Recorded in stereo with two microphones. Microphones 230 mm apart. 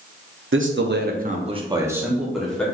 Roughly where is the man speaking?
Right.